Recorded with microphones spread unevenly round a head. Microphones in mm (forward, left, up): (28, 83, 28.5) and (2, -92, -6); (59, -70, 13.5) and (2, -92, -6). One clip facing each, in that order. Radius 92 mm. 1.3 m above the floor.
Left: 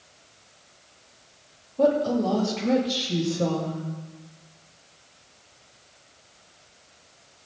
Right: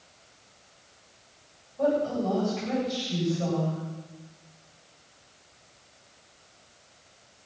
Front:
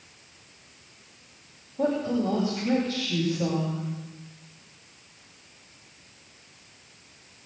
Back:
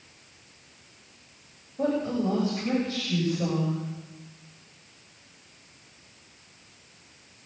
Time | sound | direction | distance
1.8 | a woman speaking | 120° left | 7 m